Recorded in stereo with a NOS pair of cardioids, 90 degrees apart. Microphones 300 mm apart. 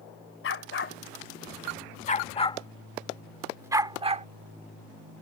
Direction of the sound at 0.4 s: 45° left.